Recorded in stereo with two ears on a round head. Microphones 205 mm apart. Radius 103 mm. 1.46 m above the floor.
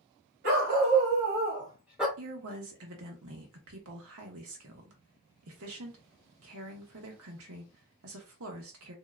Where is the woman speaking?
70° right (ahead or behind), 1.2 m.